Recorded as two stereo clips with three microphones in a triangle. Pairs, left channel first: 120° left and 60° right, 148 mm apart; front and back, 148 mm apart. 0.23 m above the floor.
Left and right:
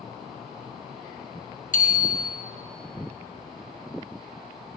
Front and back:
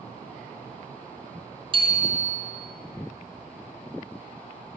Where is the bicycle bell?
130° left, 2 m.